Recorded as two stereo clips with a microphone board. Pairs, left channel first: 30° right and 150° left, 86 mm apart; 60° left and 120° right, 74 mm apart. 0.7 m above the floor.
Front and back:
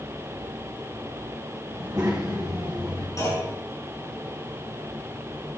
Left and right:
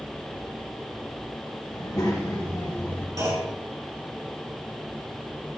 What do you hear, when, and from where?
1.7 s a child speaking: 80° left, 3.5 m; by 3.1 s 95° left, 2 m
3.2 s a clunk: 80° right, 5.5 m